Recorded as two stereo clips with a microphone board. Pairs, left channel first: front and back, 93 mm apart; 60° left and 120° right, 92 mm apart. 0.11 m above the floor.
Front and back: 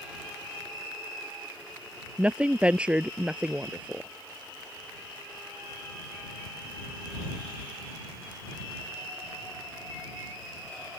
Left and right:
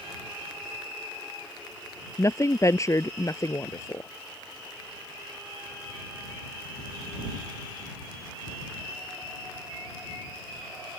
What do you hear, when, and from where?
2.2 s a woman speaking: 105° left